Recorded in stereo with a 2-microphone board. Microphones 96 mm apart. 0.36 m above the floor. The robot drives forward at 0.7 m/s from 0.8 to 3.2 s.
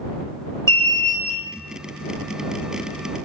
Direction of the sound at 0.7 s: 30° left (ahead or behind).